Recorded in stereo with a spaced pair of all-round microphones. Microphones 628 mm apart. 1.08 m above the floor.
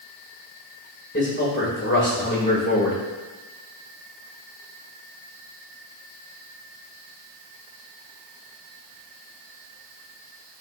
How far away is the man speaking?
About 3 m.